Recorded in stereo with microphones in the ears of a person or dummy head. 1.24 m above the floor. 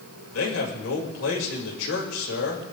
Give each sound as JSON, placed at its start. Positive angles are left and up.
{"t": 0.3, "sound": "a man speaking", "side_deg": 75, "distance_m": 6.0}